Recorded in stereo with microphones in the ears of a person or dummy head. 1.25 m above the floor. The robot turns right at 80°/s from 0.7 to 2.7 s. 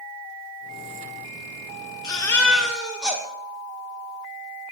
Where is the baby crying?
135° left, 0.9 m; by 3.2 s 170° right, 0.9 m.